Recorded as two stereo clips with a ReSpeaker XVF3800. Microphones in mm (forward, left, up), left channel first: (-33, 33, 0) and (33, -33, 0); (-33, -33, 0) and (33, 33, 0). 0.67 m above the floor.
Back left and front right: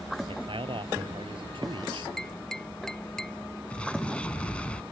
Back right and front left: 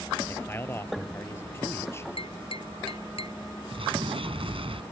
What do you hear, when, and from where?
0.3 s a man speaking: 70° right
2.2 s tapping: 140° right
3.7 s an explosion: 55° left